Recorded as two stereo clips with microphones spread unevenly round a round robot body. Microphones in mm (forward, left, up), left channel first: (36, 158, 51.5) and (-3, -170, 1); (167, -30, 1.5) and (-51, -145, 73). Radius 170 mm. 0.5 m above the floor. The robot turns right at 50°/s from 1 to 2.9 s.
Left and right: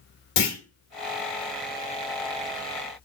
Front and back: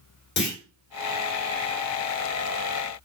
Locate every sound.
0.4 s a clunk: 60° left, 1.4 m